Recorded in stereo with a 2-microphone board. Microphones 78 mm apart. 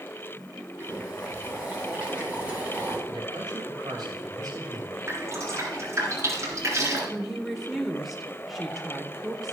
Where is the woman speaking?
Centre (ahead or behind), 1.3 m.